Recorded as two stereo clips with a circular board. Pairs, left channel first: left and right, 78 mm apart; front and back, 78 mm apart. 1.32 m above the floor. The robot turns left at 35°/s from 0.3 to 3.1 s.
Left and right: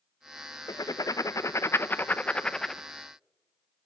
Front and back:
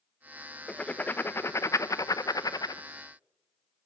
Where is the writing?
75° left, 0.6 m; by 2.8 s straight ahead, 0.6 m.